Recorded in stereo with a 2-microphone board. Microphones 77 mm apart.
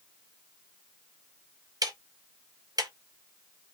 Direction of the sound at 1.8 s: 50° right (ahead or behind).